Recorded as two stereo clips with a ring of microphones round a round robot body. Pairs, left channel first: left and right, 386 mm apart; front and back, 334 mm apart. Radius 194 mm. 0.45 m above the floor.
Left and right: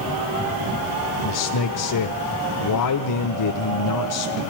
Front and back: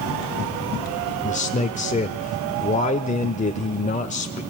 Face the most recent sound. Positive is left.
turn(degrees=65)